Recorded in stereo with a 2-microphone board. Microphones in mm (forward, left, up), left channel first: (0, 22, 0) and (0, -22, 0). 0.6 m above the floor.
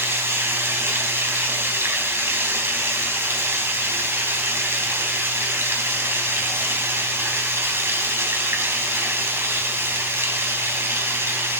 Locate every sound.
0.0 s running water: 75° right (ahead or behind), 3.5 m